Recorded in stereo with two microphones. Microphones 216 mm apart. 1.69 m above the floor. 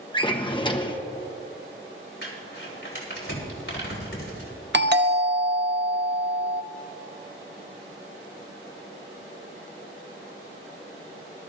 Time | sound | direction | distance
0.1 | a drawer | 20° left (ahead or behind) | 0.9 m
2.2 | crumpling | 70° left (ahead or behind) | 4 m
4.7 | a doorbell | 55° right (ahead or behind) | 0.8 m